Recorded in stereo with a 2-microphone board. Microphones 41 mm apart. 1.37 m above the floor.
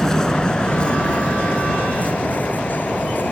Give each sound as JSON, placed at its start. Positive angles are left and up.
{"t": 0.0, "sound": "a vehicle", "side_deg": 15}